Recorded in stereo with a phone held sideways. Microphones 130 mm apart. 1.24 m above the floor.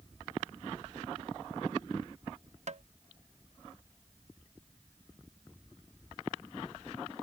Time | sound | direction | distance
2.7 | tapping | 60° right (ahead or behind) | ?